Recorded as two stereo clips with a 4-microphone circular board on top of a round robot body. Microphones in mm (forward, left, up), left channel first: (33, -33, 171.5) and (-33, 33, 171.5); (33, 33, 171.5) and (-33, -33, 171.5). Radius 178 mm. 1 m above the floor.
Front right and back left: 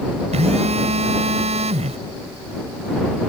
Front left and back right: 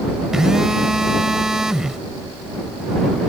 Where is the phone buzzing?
140° left.